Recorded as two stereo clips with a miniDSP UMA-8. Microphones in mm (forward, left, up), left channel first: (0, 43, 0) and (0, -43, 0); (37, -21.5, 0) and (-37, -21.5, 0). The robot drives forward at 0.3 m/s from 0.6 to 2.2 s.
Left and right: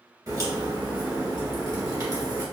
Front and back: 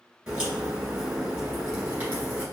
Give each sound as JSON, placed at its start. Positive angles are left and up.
{"t": 0.3, "sound": "a crack", "azimuth_deg": -105, "distance_m": 1.8}